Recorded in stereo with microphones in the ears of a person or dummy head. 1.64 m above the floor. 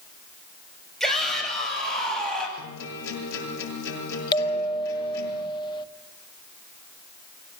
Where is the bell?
25° left (ahead or behind), 1.0 m.